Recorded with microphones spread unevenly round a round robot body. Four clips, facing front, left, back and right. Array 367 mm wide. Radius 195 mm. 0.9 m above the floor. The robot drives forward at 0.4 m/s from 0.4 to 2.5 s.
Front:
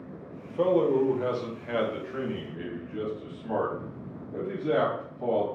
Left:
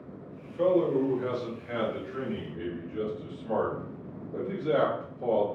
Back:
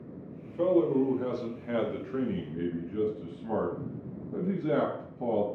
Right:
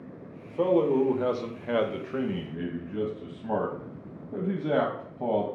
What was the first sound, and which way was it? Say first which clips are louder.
A man speaking: right 1 dB, front 2 dB; 40° right.